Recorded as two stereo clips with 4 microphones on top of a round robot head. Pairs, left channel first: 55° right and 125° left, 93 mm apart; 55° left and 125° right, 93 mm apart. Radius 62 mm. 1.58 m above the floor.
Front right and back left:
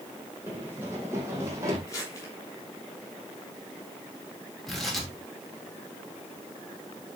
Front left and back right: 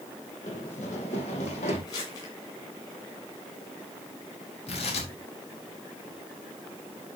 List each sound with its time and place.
0.5 s running footsteps: 55° left, 3.5 m; by 1.8 s 65° left, 4.5 m
1.9 s crumpling: 5° left, 8 m
4.7 s tearing paper: 35° left, 4 m